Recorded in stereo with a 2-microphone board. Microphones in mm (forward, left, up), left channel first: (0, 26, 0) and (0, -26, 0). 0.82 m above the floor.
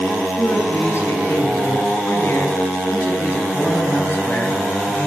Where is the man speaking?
60° left (ahead or behind), 10 m; by 5.1 s 30° left (ahead or behind), 6.5 m.